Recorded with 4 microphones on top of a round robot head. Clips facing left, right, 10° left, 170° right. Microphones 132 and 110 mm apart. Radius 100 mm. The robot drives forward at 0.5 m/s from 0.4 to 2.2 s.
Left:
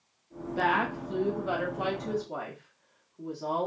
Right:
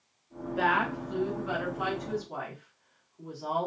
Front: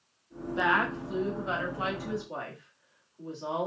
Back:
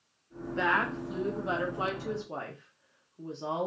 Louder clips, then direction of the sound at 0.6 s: Even, front 2 dB; 75° left.